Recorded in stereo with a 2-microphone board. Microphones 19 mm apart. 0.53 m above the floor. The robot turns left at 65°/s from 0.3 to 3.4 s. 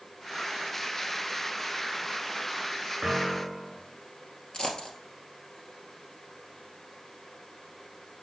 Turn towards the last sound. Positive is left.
turn(degrees=55)  # may be behind; listen again after turning